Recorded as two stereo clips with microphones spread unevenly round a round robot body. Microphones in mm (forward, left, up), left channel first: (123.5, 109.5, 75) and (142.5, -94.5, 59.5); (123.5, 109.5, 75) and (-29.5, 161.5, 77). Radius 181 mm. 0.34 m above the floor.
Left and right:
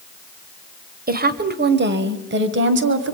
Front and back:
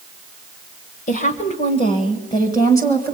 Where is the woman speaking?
55° right, 1.6 m; by 3.1 s 100° right, 2 m.